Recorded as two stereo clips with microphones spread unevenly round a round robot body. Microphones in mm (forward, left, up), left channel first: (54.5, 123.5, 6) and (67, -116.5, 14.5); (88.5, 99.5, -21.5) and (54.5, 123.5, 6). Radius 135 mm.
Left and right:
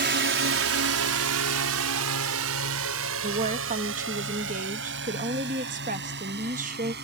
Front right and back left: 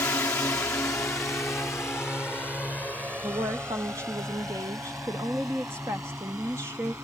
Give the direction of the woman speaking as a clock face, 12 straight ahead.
5 o'clock.